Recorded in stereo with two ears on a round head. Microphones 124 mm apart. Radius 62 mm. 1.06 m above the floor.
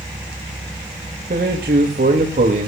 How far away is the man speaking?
About 1.9 m.